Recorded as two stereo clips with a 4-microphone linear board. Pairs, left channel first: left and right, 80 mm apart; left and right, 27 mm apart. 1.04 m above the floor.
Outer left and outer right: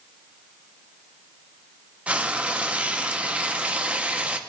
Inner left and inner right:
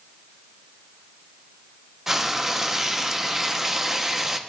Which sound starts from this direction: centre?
Frying, at 2.1 s.